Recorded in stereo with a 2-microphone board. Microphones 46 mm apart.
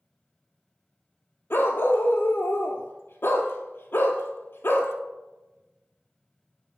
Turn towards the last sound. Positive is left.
turn(degrees=60)  # may be behind; listen again after turning